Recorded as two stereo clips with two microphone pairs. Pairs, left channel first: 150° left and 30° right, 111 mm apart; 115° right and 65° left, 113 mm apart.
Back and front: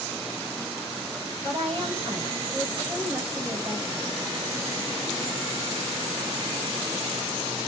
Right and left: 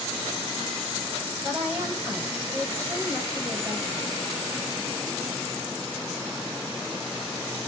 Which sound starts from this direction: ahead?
A woman speaking, at 1.4 s.